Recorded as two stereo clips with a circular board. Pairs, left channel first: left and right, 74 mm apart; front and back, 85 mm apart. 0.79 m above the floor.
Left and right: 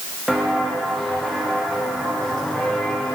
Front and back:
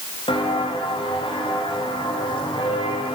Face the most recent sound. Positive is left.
turn(degrees=5)